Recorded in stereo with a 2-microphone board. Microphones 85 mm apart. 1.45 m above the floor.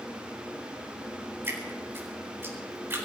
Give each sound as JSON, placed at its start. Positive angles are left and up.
{"t": 1.4, "sound": "dripping", "side_deg": -25, "distance_m": 4.0}